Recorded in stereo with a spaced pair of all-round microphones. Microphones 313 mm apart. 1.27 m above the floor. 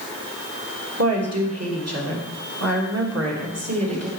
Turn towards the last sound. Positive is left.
turn(degrees=-55)  # may be behind; listen again after turning